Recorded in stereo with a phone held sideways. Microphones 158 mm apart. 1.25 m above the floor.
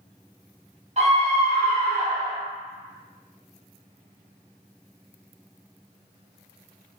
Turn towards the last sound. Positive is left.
turn(degrees=-40)  # may be behind; listen again after turning